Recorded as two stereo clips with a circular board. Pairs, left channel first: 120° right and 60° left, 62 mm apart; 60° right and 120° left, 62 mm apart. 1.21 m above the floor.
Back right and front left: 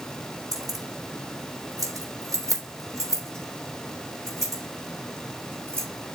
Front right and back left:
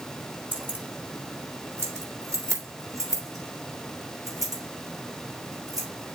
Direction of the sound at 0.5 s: 60° left.